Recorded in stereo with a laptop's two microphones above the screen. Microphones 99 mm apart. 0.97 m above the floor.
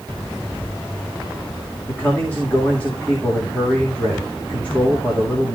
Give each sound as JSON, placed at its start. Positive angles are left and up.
{"t": 1.9, "sound": "a man speaking", "side_deg": 15, "distance_m": 2.0}